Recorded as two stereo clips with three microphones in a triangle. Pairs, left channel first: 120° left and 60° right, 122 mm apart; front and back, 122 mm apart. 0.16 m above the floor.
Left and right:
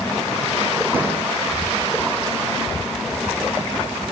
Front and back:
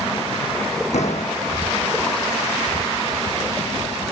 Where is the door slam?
15° left, 5.5 m.